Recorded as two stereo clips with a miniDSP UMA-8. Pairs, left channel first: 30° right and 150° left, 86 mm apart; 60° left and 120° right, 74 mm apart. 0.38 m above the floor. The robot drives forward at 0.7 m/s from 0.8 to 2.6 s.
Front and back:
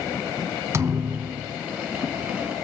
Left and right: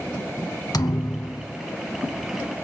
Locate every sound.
0.7 s a thud: 95° left, 0.7 m; by 1.6 s 130° left, 0.9 m